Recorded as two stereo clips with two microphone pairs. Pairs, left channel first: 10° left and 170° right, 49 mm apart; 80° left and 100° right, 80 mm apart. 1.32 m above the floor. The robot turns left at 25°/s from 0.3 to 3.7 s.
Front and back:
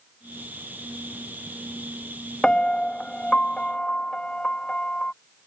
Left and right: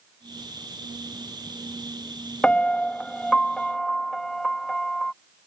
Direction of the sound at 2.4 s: 35° left.